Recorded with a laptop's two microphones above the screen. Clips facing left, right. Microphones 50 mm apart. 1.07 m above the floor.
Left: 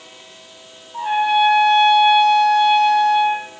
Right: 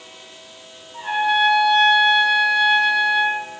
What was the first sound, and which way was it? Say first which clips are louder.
A trumpet: left 3 dB; centre (ahead or behind).